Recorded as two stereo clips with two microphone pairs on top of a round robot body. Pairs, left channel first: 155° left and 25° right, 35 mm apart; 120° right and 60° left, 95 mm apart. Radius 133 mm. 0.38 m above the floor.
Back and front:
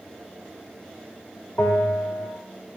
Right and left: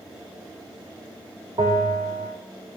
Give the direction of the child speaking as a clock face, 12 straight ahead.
I don't hear a child speaking.